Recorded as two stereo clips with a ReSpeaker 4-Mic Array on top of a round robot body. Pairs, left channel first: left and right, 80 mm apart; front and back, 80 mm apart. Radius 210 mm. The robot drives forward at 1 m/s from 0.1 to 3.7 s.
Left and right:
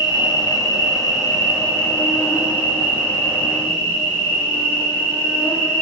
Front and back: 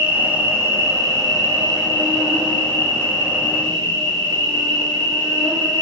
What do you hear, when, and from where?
0.0 s an insect: 105° left, 1.6 m; by 5.8 s 160° left, 4.5 m